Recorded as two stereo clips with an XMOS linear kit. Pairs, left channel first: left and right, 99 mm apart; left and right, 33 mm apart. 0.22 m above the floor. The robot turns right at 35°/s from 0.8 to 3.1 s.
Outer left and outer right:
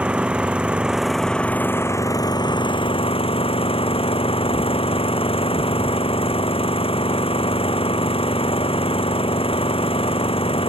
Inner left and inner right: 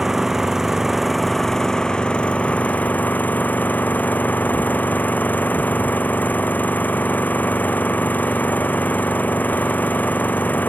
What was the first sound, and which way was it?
An engine running, 10° right.